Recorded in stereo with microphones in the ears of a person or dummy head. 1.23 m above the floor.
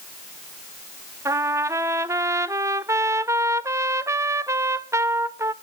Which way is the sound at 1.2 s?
15° right (ahead or behind).